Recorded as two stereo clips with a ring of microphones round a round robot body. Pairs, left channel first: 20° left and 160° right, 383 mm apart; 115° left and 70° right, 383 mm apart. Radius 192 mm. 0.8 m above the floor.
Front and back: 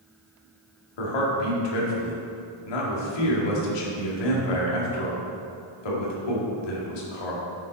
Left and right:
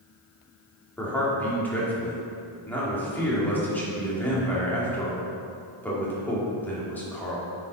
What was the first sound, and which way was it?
A man speaking, 25° left.